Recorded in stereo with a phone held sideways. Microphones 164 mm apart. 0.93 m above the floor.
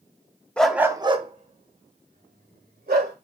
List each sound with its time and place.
0.6 s a dog barking: 5° left (ahead or behind), 0.5 m; by 3.1 s 70° right (ahead or behind), 1.7 m